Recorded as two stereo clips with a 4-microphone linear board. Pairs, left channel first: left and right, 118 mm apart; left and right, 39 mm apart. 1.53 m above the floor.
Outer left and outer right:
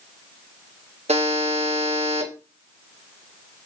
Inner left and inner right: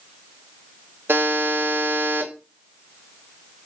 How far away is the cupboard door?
No cupboard door in this recording.